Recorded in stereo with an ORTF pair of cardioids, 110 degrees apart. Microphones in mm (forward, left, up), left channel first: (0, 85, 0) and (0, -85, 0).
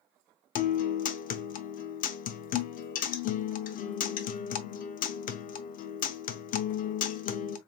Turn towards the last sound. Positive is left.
turn(degrees=55)